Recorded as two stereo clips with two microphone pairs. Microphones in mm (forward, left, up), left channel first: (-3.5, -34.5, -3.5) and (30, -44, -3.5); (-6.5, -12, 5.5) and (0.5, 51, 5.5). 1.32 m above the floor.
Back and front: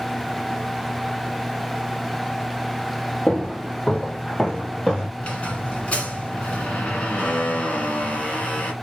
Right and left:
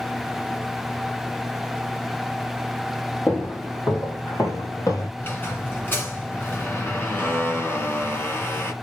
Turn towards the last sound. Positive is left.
turn(degrees=-150)